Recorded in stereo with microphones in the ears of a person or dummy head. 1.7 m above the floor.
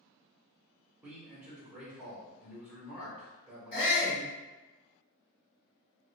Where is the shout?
55° left (ahead or behind), 1.4 m.